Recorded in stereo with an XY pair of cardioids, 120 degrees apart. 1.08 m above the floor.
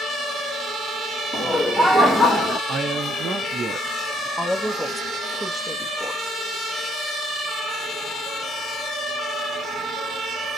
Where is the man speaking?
35° right, 0.7 m.